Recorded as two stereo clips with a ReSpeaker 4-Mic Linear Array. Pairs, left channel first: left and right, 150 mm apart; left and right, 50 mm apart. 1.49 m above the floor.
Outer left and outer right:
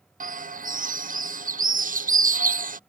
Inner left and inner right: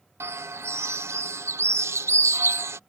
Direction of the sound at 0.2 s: 60° right (ahead or behind).